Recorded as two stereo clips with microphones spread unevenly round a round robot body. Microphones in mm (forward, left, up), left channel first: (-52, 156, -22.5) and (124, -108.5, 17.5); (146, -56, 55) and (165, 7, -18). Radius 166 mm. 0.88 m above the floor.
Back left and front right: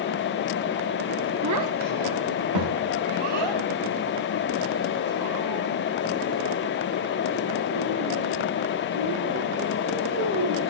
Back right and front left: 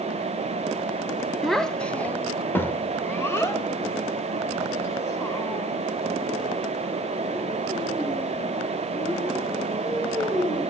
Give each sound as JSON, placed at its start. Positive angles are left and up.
{"t": 1.4, "sound": "a child speaking", "azimuth_deg": -15, "distance_m": 1.1}